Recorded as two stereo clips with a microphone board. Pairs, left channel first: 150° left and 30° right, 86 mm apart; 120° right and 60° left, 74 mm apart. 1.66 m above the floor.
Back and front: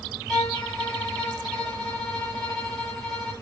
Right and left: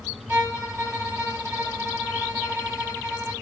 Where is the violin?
45° left, 1.7 m.